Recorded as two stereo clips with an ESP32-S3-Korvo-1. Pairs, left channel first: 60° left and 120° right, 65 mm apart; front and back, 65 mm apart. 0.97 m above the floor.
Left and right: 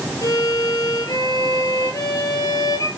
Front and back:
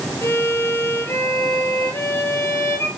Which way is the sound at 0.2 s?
40° left.